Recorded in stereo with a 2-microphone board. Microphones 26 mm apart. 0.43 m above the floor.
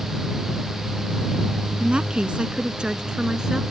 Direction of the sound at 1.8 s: 45° right (ahead or behind).